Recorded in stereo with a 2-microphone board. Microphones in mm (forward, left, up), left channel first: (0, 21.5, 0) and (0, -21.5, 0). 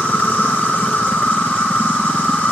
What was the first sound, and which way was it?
An insect, 35° left (ahead or behind).